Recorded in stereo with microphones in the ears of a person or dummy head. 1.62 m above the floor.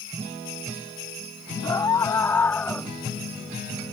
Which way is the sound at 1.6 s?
20° left (ahead or behind).